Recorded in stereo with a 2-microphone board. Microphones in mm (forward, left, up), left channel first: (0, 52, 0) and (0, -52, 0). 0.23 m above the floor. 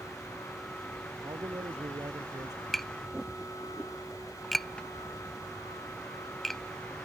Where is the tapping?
Centre (ahead or behind).